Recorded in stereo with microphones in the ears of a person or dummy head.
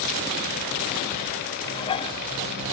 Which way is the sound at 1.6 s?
30° left (ahead or behind).